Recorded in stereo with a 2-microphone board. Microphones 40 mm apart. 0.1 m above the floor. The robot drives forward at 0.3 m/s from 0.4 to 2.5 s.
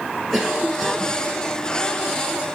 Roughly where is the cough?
Centre.